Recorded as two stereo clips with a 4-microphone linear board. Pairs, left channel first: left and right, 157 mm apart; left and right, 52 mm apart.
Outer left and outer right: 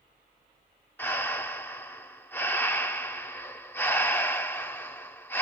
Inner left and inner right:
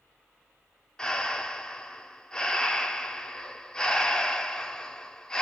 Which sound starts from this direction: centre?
Breathing, at 1.0 s.